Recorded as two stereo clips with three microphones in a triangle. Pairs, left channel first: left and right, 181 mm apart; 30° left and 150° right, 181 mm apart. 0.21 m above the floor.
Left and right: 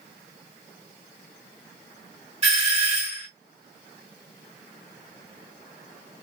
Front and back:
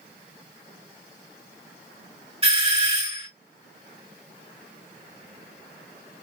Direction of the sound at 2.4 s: 115° right.